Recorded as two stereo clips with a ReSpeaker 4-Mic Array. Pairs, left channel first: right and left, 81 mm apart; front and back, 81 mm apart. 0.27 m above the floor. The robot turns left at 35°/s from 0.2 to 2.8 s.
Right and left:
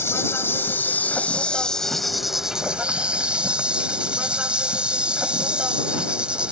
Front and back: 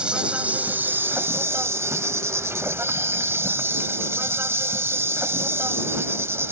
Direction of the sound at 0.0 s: 115° right.